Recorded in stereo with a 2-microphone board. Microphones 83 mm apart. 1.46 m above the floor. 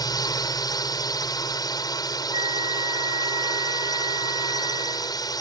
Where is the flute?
60° right (ahead or behind).